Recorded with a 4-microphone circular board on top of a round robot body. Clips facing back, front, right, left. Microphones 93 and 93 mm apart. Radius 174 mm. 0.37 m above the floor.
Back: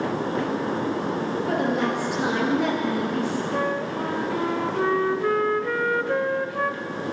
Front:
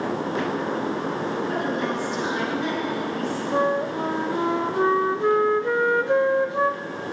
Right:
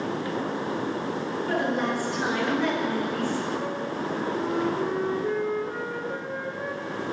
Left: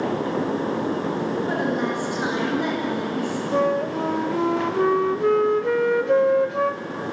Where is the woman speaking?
160° left, 8.5 m.